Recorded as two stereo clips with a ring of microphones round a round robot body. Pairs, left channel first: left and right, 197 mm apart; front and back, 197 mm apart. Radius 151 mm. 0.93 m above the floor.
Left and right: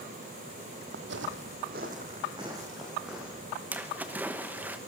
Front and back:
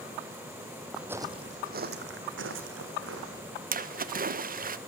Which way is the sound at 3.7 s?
170° right.